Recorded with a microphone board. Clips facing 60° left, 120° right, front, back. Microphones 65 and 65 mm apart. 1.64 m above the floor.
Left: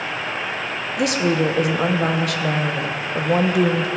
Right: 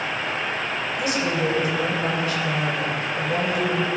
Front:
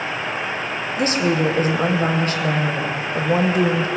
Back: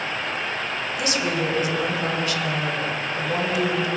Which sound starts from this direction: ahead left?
A woman speaking, at 1.0 s.